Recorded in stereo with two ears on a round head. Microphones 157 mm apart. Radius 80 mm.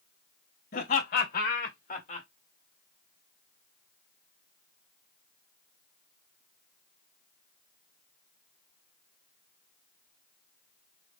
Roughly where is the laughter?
Left.